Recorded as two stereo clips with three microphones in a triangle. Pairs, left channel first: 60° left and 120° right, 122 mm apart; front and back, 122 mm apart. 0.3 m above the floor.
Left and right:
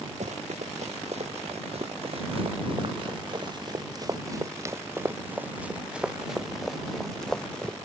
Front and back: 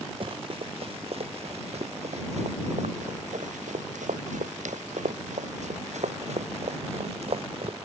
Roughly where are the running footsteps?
Behind right.